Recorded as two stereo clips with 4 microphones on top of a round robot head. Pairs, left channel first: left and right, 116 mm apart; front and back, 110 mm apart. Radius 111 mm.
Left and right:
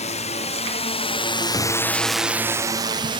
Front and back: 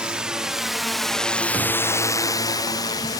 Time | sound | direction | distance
0.0 | a drone | 100° left | ?